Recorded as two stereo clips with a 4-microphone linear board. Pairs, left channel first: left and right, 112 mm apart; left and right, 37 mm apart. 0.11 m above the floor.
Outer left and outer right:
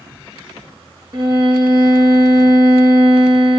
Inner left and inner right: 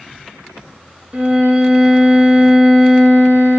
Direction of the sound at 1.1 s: 45° right (ahead or behind).